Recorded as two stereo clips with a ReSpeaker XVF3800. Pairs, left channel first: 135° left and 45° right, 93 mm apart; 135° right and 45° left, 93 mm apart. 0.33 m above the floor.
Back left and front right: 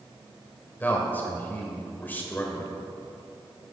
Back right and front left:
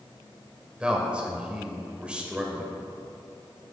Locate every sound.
0.8 s a man speaking: 105° left, 1.2 m